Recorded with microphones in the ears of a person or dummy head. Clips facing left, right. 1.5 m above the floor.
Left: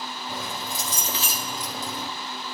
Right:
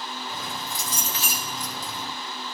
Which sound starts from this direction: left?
Keys jangling, at 0.3 s.